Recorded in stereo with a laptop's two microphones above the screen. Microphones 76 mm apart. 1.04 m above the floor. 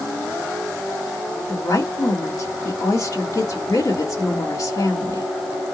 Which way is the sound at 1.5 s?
50° left (ahead or behind).